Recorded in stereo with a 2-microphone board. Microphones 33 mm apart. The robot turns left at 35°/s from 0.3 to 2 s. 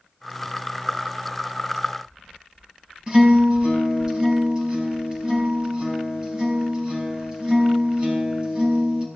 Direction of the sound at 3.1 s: 25° right (ahead or behind).